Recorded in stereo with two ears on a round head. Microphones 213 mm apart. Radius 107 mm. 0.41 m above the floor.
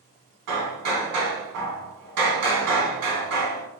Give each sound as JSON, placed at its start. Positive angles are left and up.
{"t": 0.5, "sound": "hammering", "side_deg": -80, "distance_m": 1.0}